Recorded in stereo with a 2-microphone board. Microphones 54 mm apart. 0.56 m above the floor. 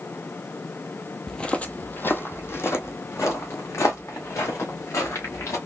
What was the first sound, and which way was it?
Footsteps, 10° left (ahead or behind).